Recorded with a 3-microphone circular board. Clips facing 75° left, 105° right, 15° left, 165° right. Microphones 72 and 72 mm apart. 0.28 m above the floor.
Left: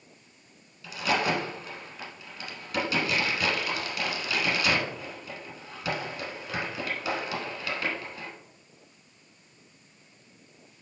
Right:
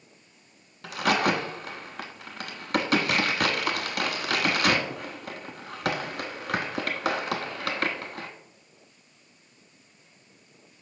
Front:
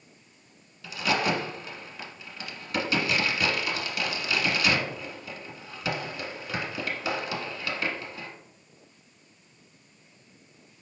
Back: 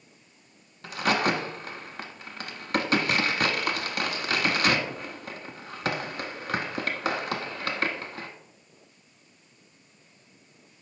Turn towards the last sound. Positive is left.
turn(degrees=-130)